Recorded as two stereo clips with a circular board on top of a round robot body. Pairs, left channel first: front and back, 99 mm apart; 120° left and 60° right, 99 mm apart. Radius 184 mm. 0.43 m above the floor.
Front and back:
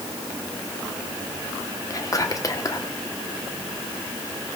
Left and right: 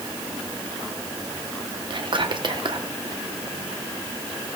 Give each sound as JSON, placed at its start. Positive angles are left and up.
{"t": 1.9, "sound": "whispering", "azimuth_deg": -45, "distance_m": 1.3}